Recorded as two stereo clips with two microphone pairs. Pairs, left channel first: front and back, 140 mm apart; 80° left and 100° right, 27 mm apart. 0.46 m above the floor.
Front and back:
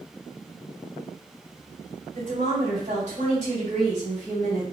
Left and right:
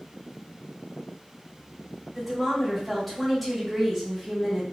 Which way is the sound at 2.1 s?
170° left.